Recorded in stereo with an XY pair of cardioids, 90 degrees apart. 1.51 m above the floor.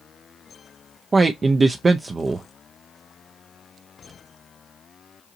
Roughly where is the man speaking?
Ahead right.